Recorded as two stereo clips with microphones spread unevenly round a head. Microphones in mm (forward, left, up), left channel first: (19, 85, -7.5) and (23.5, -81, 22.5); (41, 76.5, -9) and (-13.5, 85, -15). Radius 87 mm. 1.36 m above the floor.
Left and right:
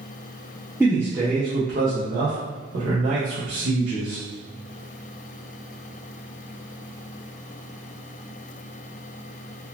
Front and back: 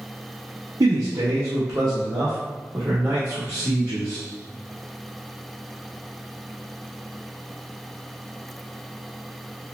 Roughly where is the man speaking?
Behind.